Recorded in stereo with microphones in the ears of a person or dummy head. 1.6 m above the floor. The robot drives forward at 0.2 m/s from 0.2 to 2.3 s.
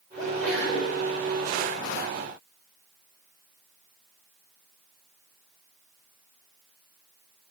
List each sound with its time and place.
0.2 s a sneeze: 10° right (ahead or behind), 5 m